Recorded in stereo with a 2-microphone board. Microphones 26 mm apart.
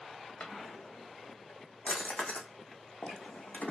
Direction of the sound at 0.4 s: 85° left.